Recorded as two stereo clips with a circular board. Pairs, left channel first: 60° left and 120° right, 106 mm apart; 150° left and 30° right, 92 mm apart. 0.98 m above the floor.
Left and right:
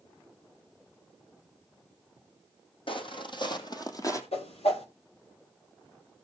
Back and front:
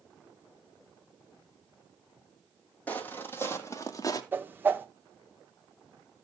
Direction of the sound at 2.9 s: 80° left.